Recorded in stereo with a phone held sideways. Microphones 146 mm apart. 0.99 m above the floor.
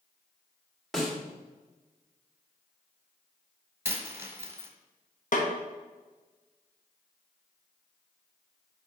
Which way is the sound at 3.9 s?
20° right (ahead or behind).